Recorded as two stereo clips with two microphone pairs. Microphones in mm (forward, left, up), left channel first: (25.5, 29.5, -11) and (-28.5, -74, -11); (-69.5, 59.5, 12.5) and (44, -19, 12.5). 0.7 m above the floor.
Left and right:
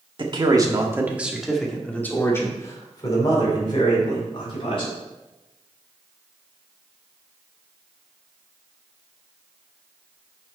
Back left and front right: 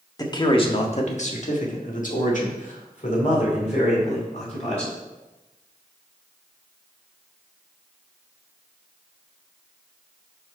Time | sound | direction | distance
0.2 | a man speaking | 155° right | 1.6 m